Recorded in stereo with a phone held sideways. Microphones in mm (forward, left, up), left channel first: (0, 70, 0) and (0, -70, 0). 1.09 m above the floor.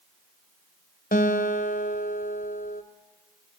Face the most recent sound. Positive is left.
turn(degrees=80)